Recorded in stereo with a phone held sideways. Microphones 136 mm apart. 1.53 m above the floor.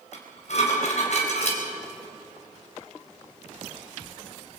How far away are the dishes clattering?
About 4.5 m.